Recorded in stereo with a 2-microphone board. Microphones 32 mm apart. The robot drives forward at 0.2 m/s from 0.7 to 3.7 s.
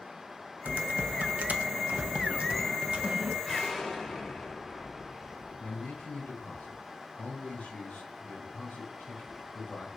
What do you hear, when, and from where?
0.7 s typing on a keyboard: 65° right (ahead or behind), 0.5 m; by 3.4 s 40° right (ahead or behind), 0.7 m
3.5 s an explosion: 5° left (ahead or behind), 1.2 m
5.6 s a man speaking: 65° left (ahead or behind), 2.5 m